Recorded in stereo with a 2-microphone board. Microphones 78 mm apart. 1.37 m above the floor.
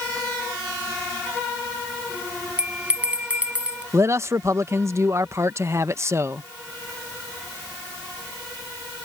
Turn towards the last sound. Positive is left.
turn(degrees=-35)  # may be behind; listen again after turning